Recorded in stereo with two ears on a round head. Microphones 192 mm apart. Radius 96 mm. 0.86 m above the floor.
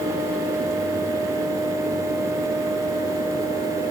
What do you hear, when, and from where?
Only background noise.